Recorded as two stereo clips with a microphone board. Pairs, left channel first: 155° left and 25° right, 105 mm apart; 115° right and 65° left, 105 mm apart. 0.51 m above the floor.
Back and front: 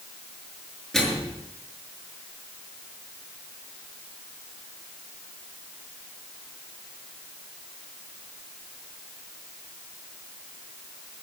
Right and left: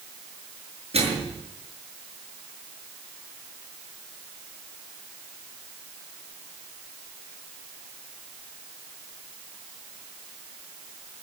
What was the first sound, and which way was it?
A microwave, 70° left.